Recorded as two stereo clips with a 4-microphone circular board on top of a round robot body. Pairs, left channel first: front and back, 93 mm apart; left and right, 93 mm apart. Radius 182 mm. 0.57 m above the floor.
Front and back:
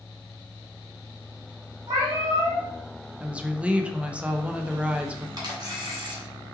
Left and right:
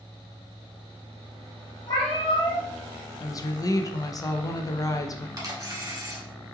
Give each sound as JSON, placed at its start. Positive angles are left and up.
{"t": 1.9, "sound": "a cat meowing", "azimuth_deg": 130, "distance_m": 0.6}
{"t": 3.2, "sound": "a woman speaking", "azimuth_deg": 110, "distance_m": 0.6}
{"t": 5.4, "sound": "a camera shutter", "azimuth_deg": -140, "distance_m": 1.4}